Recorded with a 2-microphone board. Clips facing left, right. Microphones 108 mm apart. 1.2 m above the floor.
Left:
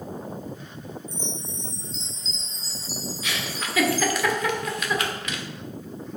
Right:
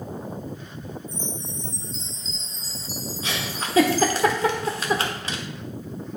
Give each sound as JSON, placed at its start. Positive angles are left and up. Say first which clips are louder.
{"t": 1.1, "sound": "a chime", "louder": "right 1 dB", "side_deg": -50, "distance_m": 1.6}
{"t": 3.2, "sound": "a giggle", "louder": "right 3 dB", "side_deg": -30, "distance_m": 1.2}